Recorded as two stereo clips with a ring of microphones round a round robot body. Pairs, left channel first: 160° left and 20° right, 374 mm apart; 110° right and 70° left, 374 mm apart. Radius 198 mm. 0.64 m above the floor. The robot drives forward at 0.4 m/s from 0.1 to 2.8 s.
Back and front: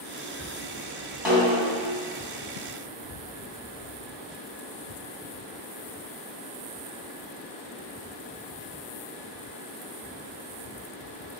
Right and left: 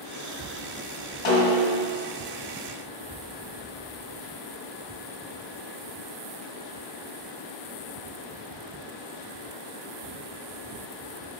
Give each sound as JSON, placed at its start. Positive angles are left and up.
{"t": 1.2, "sound": "a snare drum", "azimuth_deg": -110, "distance_m": 3.0}